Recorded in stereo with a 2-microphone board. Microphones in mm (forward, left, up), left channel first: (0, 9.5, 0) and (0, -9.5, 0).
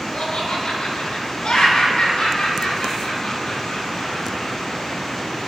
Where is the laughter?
70° left (ahead or behind), 7 m; by 4.5 s 45° left (ahead or behind), 7 m.